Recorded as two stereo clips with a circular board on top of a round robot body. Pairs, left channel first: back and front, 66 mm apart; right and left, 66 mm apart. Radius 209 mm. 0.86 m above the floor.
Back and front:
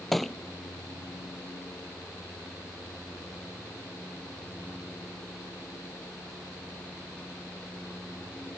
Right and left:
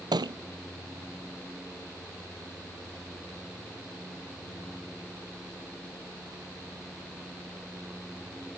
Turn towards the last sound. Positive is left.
turn(degrees=90)